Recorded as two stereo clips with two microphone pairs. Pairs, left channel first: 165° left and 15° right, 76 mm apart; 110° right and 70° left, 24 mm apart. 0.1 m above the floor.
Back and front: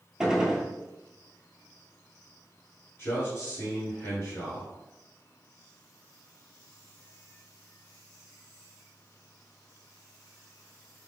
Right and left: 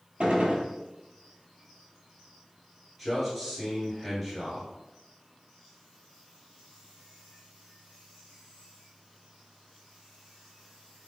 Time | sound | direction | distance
0.2 | a gunshot | 65° left | 0.7 m
3.0 | a man speaking | 160° left | 1.5 m